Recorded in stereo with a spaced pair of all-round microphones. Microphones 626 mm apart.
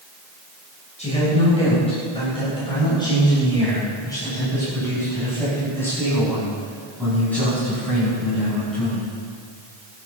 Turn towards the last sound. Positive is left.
turn(degrees=0)  # may be behind; listen again after turning